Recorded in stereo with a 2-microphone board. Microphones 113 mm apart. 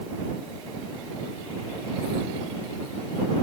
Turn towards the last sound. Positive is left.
No sound to turn to.